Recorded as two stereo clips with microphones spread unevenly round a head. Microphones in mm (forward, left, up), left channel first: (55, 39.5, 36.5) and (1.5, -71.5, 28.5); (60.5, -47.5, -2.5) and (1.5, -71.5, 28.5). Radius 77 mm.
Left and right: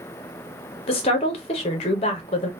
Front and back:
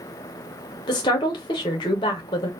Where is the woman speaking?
50° left, 0.5 m.